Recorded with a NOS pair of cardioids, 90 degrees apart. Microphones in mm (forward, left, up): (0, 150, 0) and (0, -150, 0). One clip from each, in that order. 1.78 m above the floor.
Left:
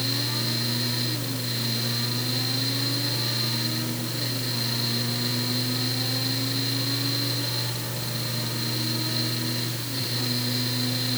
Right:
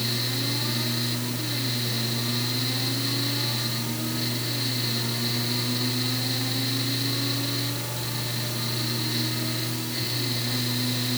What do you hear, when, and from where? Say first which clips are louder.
0.0 s a fan: left 1 dB; 5° left, 1.6 m